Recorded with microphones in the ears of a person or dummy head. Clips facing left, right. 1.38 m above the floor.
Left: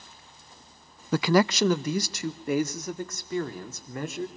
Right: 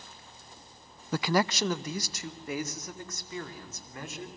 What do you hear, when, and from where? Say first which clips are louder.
1.1 s a man speaking: left 6 dB; 55° left (ahead or behind), 0.5 m; by 4.3 s 50° left (ahead or behind), 3.5 m